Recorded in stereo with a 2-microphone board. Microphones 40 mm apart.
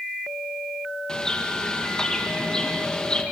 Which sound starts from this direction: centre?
A bird, at 1.1 s.